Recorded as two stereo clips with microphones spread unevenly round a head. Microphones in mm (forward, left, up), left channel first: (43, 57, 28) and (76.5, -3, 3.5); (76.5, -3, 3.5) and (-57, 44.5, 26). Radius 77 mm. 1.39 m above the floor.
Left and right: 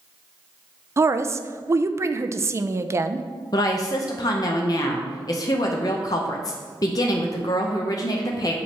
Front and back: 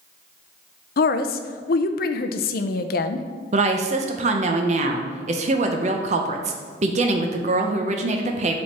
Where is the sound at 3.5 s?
130° left, 0.7 m.